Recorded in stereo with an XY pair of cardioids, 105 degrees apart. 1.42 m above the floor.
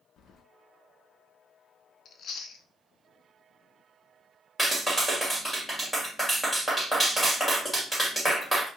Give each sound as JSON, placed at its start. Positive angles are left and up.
{"t": 0.2, "sound": "keys jangling", "azimuth_deg": 70, "distance_m": 0.8}
{"t": 2.0, "sound": "chewing", "azimuth_deg": 60, "distance_m": 0.7}
{"t": 4.6, "sound": "a clap", "azimuth_deg": 0, "distance_m": 2.5}